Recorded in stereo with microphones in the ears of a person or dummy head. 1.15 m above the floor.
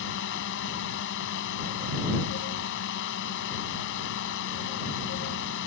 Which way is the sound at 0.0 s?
65° left (ahead or behind).